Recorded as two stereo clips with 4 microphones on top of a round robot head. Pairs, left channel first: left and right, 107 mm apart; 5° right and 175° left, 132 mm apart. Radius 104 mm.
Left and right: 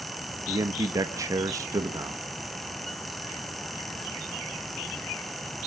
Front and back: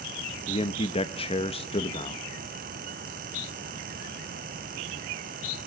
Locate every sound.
0.5 s a man speaking: 35° right, 1.0 m